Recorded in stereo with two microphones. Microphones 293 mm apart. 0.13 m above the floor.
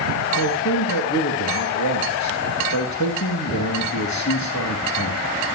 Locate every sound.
0.4 s a man speaking: 70° left (ahead or behind), 4.5 m